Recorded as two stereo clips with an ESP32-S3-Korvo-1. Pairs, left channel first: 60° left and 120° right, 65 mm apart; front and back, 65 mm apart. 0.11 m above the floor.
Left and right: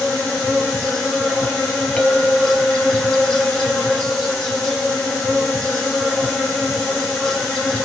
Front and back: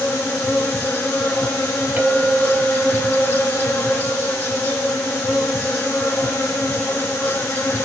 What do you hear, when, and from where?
0.0 s an insect: 10° right, 0.8 m
2.0 s a clink: 135° left, 1.6 m